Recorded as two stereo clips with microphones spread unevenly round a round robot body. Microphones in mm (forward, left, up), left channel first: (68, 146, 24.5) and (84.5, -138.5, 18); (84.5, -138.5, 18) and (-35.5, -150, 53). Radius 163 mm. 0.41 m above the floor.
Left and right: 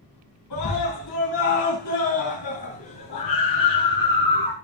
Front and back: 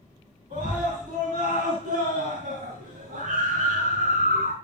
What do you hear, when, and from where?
0.5 s a scream: 120° left, 5.5 m; by 4.5 s 145° left, 2.5 m